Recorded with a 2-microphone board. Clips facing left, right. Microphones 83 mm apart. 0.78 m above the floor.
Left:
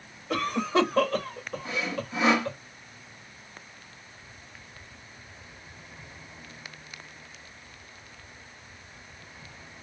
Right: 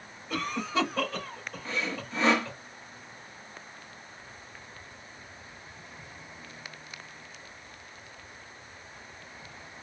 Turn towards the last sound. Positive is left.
turn(degrees=10)  # may be behind; listen again after turning